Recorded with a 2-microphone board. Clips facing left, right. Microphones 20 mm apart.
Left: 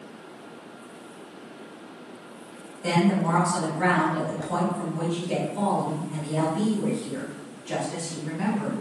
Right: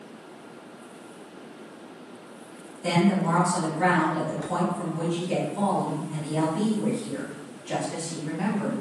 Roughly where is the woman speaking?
Centre.